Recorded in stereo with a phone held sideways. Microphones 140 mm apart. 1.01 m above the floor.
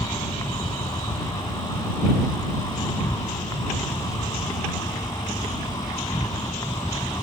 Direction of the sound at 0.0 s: 30° left (ahead or behind).